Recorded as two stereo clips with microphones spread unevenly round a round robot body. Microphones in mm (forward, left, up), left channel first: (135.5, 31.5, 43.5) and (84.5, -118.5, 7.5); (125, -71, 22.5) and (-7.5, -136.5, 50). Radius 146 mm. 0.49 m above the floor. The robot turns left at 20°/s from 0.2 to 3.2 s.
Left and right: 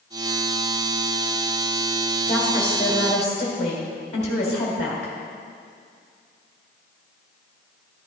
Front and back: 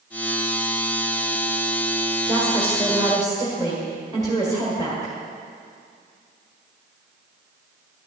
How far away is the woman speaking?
About 1.7 m.